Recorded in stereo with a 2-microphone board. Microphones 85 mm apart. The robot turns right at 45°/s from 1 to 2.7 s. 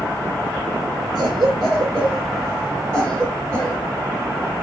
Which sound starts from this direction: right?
A cough, at 1.1 s.